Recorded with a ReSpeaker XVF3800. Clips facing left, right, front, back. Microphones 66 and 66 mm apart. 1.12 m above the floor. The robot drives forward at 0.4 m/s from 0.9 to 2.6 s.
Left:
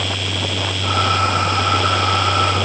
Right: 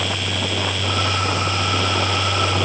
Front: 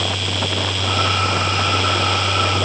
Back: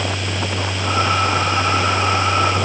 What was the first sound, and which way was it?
Only background noise.